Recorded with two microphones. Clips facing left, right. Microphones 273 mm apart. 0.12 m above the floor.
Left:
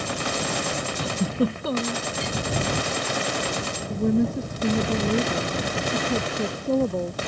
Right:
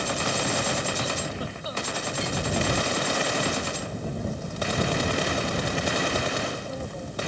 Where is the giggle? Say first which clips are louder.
Left 8 dB; 65° left (ahead or behind).